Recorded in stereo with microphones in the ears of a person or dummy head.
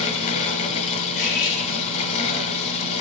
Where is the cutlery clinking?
55° left (ahead or behind), 3.5 m.